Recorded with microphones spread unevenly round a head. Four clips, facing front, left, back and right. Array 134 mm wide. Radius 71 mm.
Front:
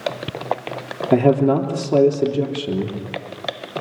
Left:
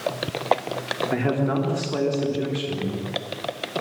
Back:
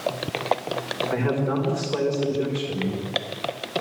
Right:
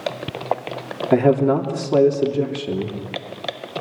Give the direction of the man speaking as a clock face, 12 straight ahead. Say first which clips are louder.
Right 9 dB, front 10 dB; 1 o'clock.